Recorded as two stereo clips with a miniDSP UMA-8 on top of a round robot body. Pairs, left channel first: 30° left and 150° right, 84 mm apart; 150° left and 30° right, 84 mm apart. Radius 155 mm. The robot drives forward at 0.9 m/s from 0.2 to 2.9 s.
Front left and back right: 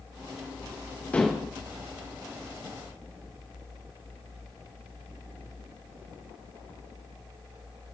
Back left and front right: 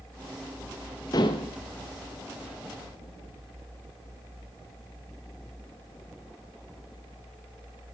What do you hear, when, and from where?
1.1 s dishes clattering: 105° left, 0.5 m; by 1.5 s 140° left, 0.7 m